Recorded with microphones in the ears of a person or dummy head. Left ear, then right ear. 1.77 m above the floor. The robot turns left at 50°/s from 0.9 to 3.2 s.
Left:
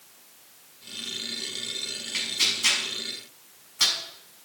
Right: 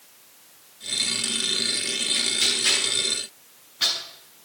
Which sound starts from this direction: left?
Tearing paper, at 2.1 s.